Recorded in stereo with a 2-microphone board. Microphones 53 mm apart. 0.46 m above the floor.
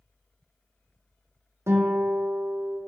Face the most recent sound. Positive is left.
turn(degrees=-55)  # may be behind; listen again after turning